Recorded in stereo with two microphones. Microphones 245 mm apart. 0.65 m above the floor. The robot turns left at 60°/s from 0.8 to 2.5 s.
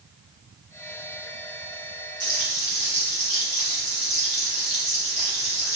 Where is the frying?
20° right (ahead or behind), 2.5 m; by 5.8 s 35° right (ahead or behind), 2.5 m.